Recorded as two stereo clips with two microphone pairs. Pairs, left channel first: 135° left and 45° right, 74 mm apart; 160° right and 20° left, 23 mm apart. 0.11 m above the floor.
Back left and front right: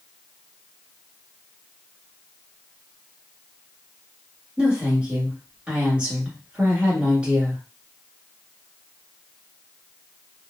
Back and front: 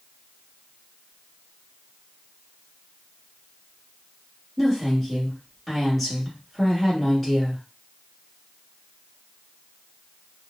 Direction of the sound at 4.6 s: 100° right.